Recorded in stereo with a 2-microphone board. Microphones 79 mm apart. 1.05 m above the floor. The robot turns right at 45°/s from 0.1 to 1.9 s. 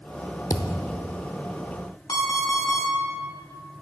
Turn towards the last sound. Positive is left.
turn(degrees=50)  # may be behind; listen again after turning